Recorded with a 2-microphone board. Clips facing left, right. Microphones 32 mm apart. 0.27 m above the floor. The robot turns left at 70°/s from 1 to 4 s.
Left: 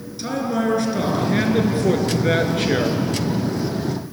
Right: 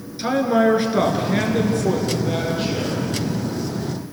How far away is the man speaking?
About 3.5 m.